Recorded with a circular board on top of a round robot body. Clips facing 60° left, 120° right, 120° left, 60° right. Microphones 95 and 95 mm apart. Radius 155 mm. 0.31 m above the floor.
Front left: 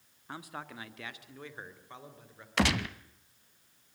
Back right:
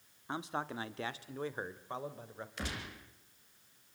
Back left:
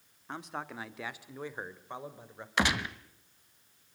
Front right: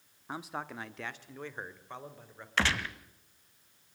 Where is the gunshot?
45° left, 1.1 m.